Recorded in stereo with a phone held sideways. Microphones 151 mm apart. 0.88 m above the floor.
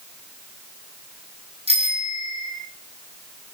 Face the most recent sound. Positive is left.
turn(degrees=-40)  # may be behind; listen again after turning